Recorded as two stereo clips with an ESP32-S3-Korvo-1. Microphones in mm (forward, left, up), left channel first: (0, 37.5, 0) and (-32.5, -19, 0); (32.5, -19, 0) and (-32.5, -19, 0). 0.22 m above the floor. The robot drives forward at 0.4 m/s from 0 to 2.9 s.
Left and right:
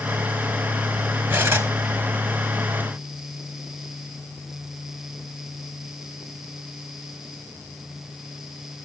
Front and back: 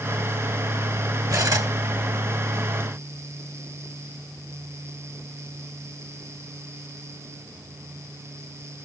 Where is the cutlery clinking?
175° right, 1.9 m.